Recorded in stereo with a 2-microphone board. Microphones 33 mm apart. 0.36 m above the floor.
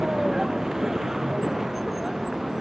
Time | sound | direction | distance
0.0 | a vehicle | 15° right (ahead or behind) | ?